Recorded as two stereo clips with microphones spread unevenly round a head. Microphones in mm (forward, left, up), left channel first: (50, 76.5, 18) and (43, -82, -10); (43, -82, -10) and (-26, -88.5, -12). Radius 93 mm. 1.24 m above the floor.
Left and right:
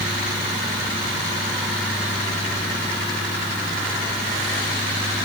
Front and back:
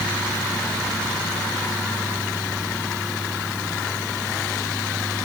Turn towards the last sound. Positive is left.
No sound to turn to.